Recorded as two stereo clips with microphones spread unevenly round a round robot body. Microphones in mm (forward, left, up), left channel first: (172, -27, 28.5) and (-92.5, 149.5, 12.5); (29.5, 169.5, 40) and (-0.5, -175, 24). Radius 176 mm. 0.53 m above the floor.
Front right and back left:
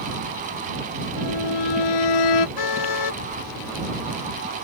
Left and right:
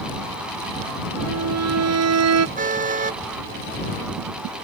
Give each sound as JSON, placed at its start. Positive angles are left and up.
{"t": 1.2, "sound": "a violin", "azimuth_deg": -50}
{"t": 2.6, "sound": "a car horn", "azimuth_deg": -25}